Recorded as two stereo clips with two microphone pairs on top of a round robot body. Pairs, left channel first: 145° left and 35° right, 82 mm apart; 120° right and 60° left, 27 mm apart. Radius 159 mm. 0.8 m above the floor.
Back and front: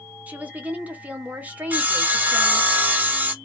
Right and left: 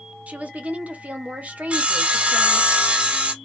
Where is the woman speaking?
35° left, 1.2 m.